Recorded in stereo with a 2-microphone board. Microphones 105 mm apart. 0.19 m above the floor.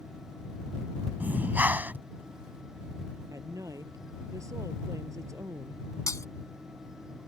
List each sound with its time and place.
1.2 s breathing: 15° right (ahead or behind)
3.3 s a woman speaking: 30° right (ahead or behind)
6.1 s breaking glass: 30° left (ahead or behind)